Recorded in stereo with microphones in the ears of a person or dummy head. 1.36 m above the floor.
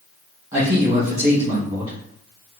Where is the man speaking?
20° right (ahead or behind), 1.5 m.